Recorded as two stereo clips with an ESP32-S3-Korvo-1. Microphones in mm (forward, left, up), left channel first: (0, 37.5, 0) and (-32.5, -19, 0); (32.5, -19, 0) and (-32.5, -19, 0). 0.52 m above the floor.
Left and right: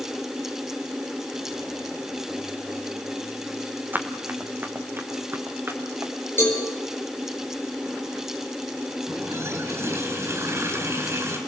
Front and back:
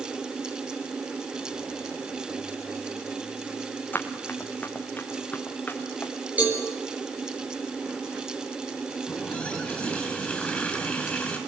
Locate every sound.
3.9 s running footsteps: 60° right, 1.7 m; by 6.1 s 65° right, 2.5 m
6.4 s a cowbell: 115° left, 5 m
9.1 s a running tap: 70° right, 4 m